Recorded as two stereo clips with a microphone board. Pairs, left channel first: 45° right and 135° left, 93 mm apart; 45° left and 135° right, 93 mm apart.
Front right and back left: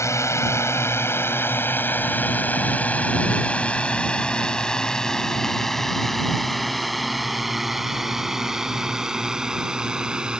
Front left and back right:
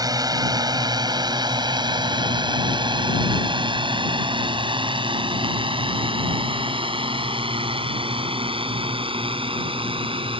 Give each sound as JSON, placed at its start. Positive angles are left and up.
{"t": 0.0, "sound": "a drone", "azimuth_deg": -100}